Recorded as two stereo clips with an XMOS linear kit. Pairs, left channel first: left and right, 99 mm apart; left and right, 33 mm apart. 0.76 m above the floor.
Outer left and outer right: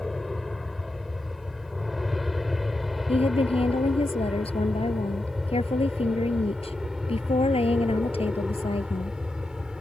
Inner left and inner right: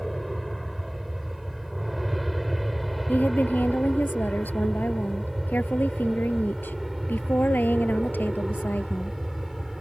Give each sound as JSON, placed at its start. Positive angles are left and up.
{"t": 0.0, "sound": "an aircraft", "side_deg": 0}
{"t": 3.1, "sound": "a woman speaking", "side_deg": 80}